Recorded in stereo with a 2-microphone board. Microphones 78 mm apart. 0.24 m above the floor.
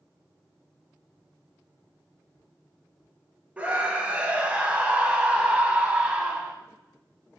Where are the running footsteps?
No running footsteps in this recording.